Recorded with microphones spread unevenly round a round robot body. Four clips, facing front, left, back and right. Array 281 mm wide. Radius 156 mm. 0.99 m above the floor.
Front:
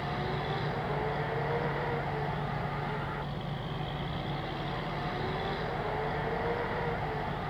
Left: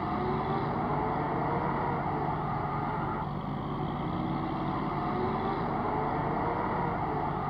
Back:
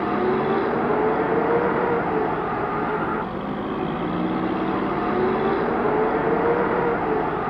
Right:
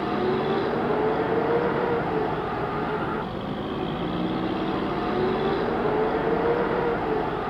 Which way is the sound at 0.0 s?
165° right.